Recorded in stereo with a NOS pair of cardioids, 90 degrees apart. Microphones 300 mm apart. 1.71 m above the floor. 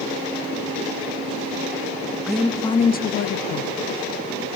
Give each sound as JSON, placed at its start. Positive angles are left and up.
{"t": 2.3, "sound": "a woman speaking", "azimuth_deg": 0, "distance_m": 0.8}